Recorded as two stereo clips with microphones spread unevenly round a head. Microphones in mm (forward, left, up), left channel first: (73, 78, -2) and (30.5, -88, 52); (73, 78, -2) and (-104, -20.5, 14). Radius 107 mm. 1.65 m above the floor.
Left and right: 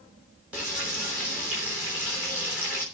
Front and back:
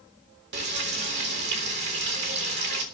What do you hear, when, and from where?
0.5 s frying: 175° left, 3.5 m